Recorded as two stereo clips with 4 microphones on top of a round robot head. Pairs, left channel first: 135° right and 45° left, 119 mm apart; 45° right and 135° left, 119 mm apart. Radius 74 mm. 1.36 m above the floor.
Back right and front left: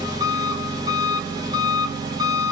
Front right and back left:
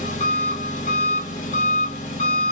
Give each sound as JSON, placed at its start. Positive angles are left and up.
{"t": 0.0, "sound": "an engine running", "azimuth_deg": -15, "distance_m": 0.8}